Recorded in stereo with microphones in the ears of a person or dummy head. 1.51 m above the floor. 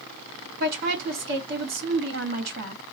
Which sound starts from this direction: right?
A woman speaking, at 0.6 s.